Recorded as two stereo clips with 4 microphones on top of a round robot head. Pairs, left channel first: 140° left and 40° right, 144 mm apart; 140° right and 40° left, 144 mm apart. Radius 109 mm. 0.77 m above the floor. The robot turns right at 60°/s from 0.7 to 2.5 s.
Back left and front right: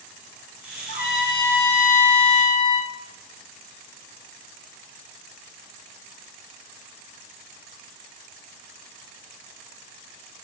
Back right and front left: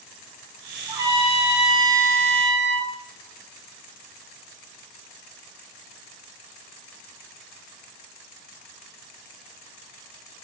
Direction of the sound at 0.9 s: 105° left.